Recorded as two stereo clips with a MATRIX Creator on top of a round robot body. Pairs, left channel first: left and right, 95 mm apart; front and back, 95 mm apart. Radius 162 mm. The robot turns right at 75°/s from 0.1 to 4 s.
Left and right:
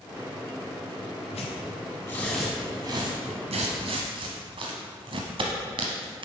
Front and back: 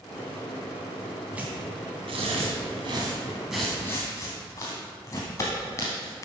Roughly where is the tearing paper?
Left.